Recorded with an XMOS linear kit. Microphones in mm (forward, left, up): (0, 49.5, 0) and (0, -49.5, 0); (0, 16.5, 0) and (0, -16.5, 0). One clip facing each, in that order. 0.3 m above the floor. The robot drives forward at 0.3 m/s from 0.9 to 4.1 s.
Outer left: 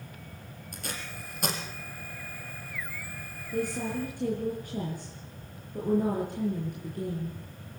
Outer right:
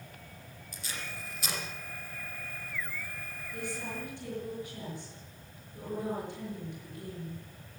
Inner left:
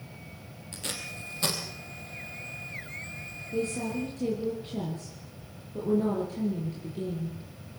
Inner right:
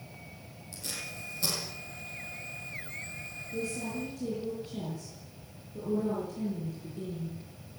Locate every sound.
0.7 s tape being pulled: 55° left (ahead or behind), 5 m
3.5 s a woman speaking: 45° left (ahead or behind), 6 m; by 7.4 s 50° left (ahead or behind), 6 m